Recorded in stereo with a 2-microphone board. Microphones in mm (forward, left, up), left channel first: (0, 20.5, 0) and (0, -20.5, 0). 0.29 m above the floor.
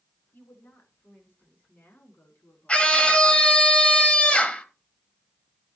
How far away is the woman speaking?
About 4 m.